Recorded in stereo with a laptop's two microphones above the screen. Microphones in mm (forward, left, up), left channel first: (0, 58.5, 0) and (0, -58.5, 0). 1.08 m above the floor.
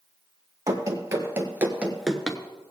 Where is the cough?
I don't hear a cough.